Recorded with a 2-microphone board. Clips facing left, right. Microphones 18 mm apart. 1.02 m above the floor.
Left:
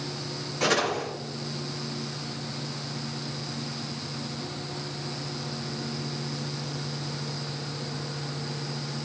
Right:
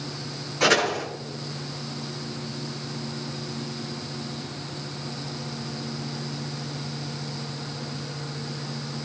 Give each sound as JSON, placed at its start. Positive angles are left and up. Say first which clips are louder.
{"t": 0.6, "sound": "a door slam", "louder": "right 4 dB", "side_deg": -20, "distance_m": 8.0}